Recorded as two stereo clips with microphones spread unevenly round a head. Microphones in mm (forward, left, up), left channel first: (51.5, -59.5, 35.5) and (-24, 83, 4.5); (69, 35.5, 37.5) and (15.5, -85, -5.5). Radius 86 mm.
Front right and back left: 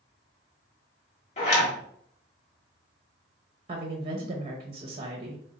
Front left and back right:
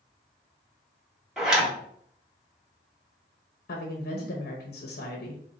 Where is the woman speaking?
70° left, 0.9 m.